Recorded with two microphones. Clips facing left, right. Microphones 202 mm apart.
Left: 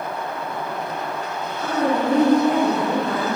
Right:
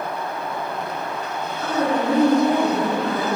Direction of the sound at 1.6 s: 45° right (ahead or behind).